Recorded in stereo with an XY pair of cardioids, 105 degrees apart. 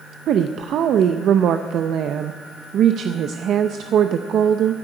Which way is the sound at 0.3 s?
65° right.